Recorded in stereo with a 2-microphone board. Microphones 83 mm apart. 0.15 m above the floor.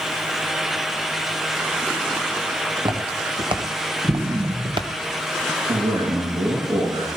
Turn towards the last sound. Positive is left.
turn(degrees=-75)  # may be behind; listen again after turning